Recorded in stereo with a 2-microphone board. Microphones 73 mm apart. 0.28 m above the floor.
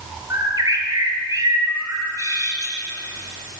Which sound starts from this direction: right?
A bird, at 0.3 s.